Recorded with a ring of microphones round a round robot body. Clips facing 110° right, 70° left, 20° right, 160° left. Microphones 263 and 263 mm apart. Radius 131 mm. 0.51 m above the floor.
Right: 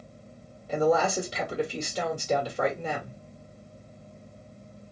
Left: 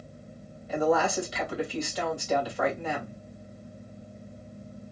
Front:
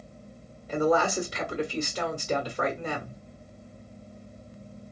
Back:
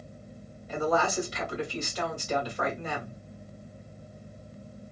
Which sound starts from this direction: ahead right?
A woman speaking, at 0.7 s.